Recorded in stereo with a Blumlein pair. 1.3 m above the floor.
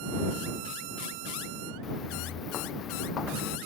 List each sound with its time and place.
1.8 s footsteps: 25° left